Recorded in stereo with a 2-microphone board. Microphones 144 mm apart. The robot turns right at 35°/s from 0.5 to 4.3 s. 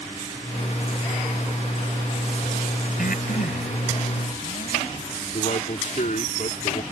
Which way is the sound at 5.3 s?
60° left (ahead or behind).